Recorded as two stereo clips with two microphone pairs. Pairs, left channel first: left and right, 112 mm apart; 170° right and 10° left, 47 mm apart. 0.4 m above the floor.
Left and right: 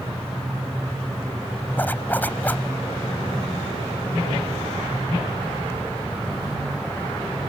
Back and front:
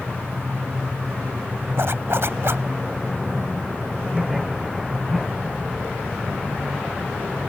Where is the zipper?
20° left.